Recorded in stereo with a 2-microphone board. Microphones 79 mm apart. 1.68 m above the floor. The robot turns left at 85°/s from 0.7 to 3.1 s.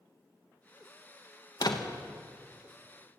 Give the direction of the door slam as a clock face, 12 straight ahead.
9 o'clock.